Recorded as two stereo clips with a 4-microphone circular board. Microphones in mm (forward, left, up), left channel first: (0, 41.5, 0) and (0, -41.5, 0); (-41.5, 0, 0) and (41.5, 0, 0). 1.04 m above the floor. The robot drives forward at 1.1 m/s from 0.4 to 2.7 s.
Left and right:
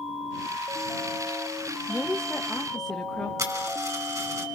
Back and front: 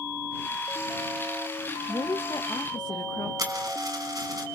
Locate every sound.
1.9 s a woman speaking: 155° left, 0.6 m; by 3.3 s 175° left, 1.3 m
3.4 s a dropped coin: 45° right, 4 m